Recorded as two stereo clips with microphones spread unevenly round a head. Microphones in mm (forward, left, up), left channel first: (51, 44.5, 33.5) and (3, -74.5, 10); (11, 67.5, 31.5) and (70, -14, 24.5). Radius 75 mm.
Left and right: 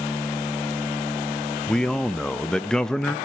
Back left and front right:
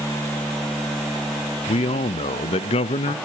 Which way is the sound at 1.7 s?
160° left.